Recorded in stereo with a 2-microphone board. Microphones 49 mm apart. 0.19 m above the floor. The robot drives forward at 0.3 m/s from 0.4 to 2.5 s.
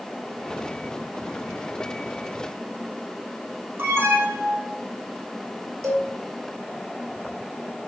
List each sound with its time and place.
3.8 s an alarm: 55° right (ahead or behind), 5 m
5.8 s a cowbell: 85° right, 2.5 m